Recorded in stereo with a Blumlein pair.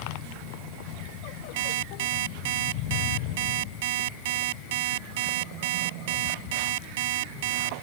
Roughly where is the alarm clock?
Ahead right.